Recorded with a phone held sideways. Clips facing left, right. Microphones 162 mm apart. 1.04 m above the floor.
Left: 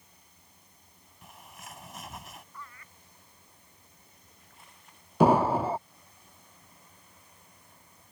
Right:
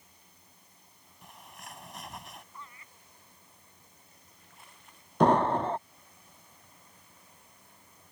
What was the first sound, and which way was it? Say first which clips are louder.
A bird: even; centre (ahead or behind).